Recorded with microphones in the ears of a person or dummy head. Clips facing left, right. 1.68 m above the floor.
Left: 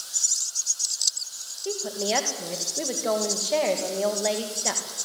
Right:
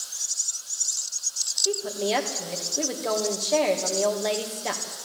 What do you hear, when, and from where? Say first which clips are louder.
1.6 s a woman speaking: right 2 dB; centre (ahead or behind), 2.5 m